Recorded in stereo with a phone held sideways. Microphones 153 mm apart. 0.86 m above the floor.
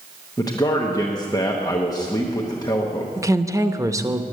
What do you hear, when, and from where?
0.4 s a man speaking: 25° left (ahead or behind), 1.0 m
3.2 s a woman speaking: 20° right (ahead or behind), 0.7 m